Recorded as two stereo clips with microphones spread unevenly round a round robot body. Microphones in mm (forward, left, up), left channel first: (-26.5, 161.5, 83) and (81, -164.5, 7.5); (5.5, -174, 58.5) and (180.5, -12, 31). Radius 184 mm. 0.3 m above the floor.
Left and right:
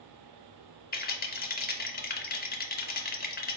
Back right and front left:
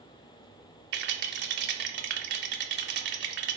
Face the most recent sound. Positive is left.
turn(degrees=40)